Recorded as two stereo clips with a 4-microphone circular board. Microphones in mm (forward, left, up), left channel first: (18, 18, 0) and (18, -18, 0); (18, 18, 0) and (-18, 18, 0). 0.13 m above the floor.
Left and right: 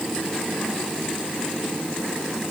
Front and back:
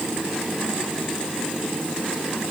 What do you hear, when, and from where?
Only background noise.